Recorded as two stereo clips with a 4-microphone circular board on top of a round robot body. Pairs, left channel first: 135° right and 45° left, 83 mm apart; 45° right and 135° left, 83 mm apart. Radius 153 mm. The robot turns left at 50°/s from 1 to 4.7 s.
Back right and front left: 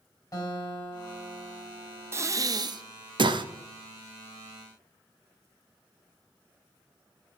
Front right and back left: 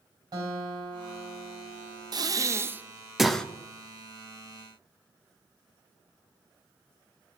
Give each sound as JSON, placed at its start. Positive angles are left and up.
{"t": 0.3, "sound": "a guitar", "azimuth_deg": 180, "distance_m": 3.5}
{"t": 2.1, "sound": "breathing", "azimuth_deg": 100, "distance_m": 0.7}